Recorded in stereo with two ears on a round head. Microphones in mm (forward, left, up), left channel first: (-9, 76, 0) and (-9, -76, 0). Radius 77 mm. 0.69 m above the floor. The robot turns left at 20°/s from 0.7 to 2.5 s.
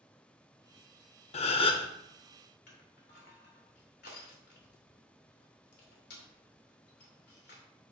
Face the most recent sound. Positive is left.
turn(degrees=65)  # may be behind; listen again after turning